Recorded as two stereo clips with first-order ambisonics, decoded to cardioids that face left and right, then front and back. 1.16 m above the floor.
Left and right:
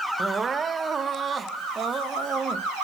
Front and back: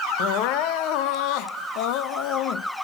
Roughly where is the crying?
Ahead.